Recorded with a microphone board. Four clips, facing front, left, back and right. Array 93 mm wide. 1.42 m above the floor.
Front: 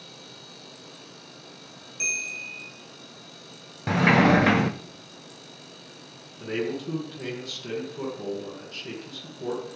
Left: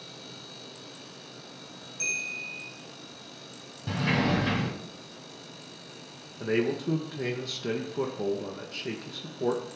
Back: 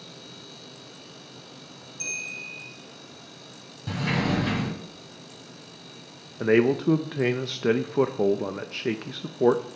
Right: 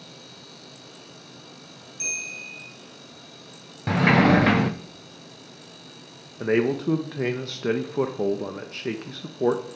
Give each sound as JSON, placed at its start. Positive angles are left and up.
{"t": 2.0, "sound": "a bell", "azimuth_deg": 0, "distance_m": 5.5}
{"t": 3.9, "sound": "a sliding door", "azimuth_deg": -45, "distance_m": 0.9}
{"t": 6.4, "sound": "a man speaking", "azimuth_deg": -155, "distance_m": 1.1}